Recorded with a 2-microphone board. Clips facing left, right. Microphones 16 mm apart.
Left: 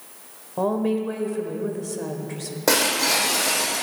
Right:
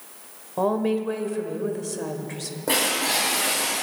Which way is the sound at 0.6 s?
10° right (ahead or behind).